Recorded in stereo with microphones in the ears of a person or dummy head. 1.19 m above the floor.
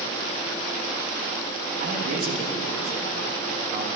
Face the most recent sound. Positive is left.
turn(degrees=-45)  # may be behind; listen again after turning